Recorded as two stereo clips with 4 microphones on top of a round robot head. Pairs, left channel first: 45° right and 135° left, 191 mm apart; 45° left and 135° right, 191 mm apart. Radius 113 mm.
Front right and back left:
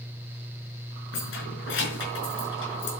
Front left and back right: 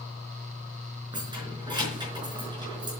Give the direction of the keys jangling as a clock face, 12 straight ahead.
2 o'clock.